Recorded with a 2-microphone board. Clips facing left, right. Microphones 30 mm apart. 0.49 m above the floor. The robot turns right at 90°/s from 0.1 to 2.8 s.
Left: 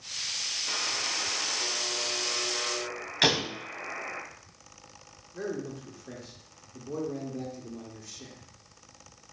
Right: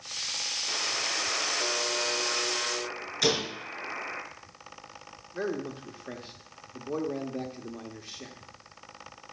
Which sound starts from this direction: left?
A door slam, at 3.2 s.